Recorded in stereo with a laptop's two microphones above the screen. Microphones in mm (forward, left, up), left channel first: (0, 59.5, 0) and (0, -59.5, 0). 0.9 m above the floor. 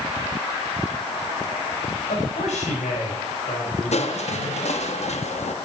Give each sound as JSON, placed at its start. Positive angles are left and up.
{"t": 2.1, "sound": "a man speaking", "side_deg": 75, "distance_m": 4.5}
{"t": 3.9, "sound": "crushing", "side_deg": 65, "distance_m": 1.1}